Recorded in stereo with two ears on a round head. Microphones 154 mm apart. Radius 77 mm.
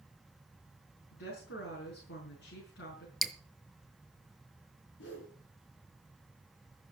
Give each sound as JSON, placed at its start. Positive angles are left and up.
{"t": 1.1, "sound": "a woman speaking", "side_deg": 75, "distance_m": 6.0}
{"t": 3.2, "sound": "dripping", "side_deg": 0, "distance_m": 0.8}
{"t": 5.0, "sound": "a whoosh", "side_deg": 80, "distance_m": 5.5}